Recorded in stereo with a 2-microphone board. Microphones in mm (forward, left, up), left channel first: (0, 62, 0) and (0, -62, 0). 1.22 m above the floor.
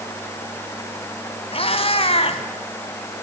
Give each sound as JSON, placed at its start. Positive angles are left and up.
{"t": 1.5, "sound": "a cat meowing", "side_deg": 50, "distance_m": 2.0}